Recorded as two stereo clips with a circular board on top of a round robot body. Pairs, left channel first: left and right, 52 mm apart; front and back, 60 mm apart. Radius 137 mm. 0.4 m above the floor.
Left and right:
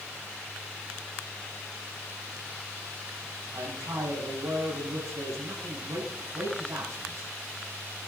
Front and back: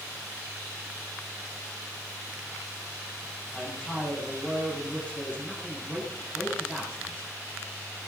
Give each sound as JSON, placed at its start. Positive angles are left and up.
{"t": 3.5, "sound": "a man speaking", "azimuth_deg": -65, "distance_m": 4.5}